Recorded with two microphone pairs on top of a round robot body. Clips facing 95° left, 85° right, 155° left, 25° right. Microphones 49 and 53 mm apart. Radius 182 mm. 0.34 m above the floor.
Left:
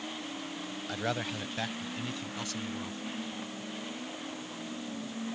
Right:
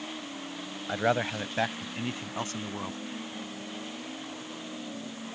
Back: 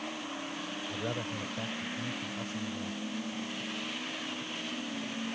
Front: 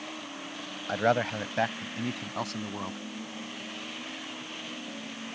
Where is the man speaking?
20° right; by 3.0 s 30° right.